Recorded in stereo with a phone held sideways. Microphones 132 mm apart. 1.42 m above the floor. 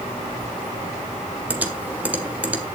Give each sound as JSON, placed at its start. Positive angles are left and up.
{"t": 1.5, "sound": "typing on a keyboard", "side_deg": -10, "distance_m": 1.7}